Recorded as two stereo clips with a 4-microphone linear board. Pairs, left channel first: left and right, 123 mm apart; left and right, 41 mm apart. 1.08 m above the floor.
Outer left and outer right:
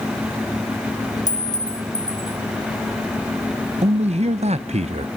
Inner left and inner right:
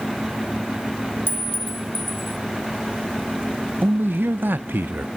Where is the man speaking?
60° right (ahead or behind), 0.7 m.